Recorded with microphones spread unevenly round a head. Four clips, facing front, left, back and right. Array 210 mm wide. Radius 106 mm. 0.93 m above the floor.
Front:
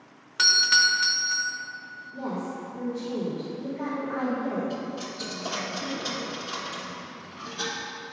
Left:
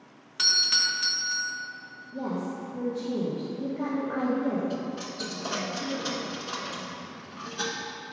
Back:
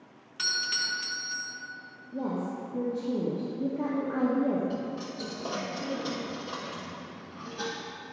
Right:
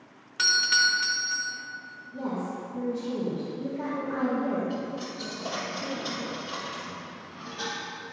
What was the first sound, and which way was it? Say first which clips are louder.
A doorbell: right 7 dB, front 10 dB; 5° right.